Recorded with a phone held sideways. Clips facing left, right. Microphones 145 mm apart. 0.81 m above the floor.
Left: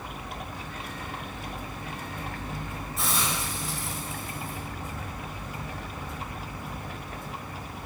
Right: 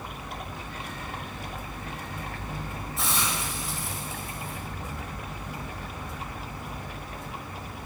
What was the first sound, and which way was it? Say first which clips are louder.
A hiss: even; centre (ahead or behind).